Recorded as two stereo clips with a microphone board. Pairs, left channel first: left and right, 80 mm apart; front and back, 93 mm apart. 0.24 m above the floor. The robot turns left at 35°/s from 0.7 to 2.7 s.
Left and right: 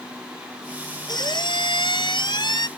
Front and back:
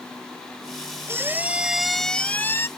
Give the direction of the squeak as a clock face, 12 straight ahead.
8 o'clock.